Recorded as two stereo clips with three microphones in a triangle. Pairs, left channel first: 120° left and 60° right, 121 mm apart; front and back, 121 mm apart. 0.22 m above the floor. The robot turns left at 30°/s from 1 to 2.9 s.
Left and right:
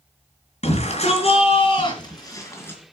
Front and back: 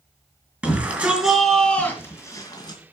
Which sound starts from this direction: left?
A shout, at 0.6 s.